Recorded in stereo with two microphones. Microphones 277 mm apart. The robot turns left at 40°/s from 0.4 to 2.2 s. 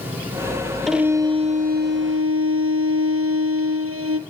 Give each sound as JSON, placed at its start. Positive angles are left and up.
{"t": 0.9, "sound": "a violin", "azimuth_deg": 0, "distance_m": 1.9}